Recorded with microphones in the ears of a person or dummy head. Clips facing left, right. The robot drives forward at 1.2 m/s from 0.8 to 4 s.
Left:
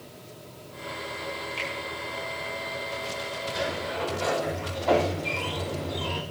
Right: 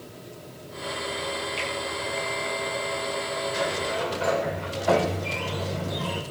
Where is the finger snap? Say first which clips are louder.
Right 3 dB; centre (ahead or behind), 3.5 m.